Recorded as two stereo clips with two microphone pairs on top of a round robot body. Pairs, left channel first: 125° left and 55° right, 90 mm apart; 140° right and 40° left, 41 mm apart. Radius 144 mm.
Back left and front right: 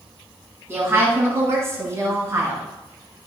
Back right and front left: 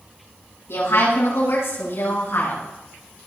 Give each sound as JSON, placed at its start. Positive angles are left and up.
{"t": 0.7, "sound": "a woman speaking", "azimuth_deg": -120, "distance_m": 6.5}